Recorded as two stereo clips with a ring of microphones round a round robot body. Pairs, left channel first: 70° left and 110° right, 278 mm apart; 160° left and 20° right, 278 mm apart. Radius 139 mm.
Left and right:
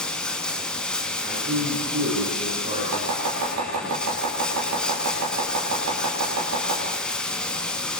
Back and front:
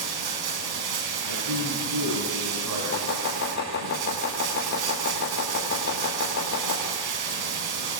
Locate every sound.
0.0 s running water: 20° right, 3 m
1.2 s a man speaking: 45° right, 7 m
2.9 s chopping: 145° right, 6.5 m